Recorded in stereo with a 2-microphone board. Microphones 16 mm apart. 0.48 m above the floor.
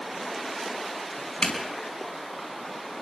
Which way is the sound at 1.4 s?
75° left (ahead or behind).